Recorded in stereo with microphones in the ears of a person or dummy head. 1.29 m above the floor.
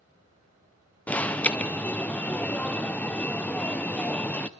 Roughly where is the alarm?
Centre.